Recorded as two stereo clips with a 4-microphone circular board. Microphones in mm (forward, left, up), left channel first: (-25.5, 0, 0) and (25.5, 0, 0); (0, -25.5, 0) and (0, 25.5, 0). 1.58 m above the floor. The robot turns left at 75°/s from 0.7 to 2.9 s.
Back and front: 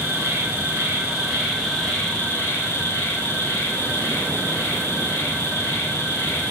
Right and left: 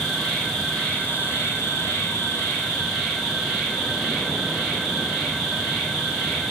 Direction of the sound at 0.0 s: Straight ahead.